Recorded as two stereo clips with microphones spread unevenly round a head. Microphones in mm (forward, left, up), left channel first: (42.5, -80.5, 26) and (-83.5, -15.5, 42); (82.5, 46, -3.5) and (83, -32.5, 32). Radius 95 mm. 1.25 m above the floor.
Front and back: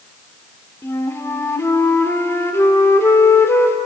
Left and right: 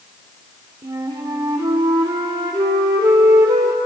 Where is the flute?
100° right, 1.6 m.